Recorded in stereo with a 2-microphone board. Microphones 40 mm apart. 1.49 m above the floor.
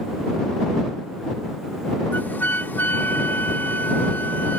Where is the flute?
55° left (ahead or behind).